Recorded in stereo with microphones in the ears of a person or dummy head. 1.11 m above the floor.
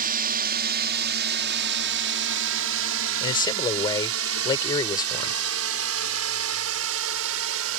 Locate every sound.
0.0 s a drone: 45° right (ahead or behind); by 7.8 s 70° right (ahead or behind)
3.2 s a man speaking: 20° left (ahead or behind)